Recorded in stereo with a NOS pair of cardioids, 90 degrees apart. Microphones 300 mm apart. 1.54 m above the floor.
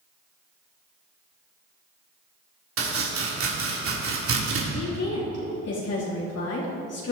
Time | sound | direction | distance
2.8 | chopping | 45° right | 3 m
4.7 | a woman speaking | 55° left | 3.5 m